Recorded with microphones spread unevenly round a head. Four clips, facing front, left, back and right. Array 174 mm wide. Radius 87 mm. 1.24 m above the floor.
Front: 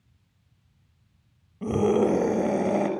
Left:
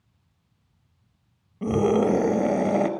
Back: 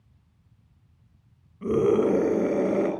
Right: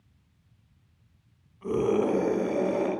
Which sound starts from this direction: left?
A scream, at 1.6 s.